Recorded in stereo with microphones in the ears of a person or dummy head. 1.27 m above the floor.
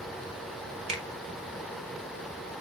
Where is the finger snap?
40° right (ahead or behind), 0.6 m.